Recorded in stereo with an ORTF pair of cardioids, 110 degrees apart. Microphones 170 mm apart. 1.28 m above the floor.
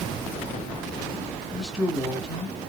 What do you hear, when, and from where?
1.5 s a man speaking: straight ahead, 1.9 m